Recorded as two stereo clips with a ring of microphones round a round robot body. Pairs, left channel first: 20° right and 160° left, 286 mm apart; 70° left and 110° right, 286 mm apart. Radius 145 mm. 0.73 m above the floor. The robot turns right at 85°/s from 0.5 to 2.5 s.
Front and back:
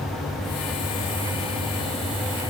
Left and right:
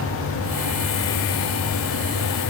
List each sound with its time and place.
Only background noise.